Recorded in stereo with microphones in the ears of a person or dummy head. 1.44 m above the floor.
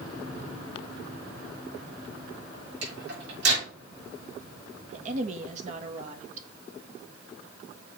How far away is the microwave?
About 5 m.